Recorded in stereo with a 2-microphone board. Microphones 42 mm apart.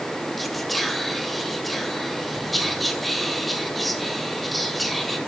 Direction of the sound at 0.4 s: Centre (ahead or behind).